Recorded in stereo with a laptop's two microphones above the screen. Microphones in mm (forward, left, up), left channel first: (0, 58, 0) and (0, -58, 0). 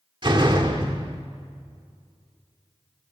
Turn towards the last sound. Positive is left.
turn(degrees=-45)  # may be behind; listen again after turning